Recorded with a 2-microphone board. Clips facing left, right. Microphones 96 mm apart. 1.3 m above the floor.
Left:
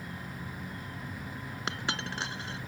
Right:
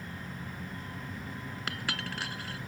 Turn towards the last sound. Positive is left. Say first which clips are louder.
# left 2 dB
turn(degrees=25)  # may be behind; listen again after turning